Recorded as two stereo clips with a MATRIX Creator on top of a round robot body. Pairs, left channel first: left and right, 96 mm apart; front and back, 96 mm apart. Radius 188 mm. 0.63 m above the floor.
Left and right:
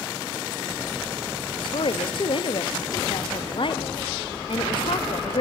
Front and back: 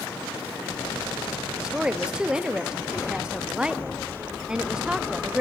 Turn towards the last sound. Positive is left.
turn(degrees=100)